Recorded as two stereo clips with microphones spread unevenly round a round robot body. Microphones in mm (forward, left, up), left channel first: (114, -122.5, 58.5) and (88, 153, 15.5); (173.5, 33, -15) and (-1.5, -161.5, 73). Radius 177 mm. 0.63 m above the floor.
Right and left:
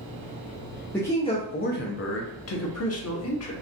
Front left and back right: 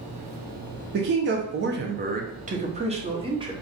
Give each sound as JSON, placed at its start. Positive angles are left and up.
{"t": 0.9, "sound": "a man speaking", "azimuth_deg": 180, "distance_m": 0.7}